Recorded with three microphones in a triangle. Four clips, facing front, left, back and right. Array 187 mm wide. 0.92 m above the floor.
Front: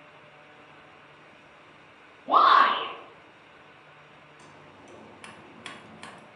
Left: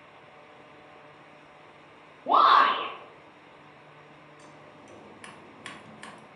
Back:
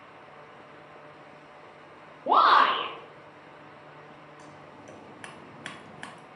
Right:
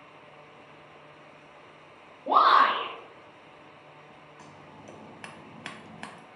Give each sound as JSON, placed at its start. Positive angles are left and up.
{"t": 2.3, "sound": "a shout", "azimuth_deg": 170, "distance_m": 0.8}
{"t": 4.4, "sound": "scissors", "azimuth_deg": -105, "distance_m": 0.6}